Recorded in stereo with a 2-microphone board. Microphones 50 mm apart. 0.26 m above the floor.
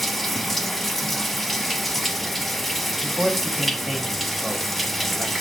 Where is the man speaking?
Centre (ahead or behind), 1.6 m.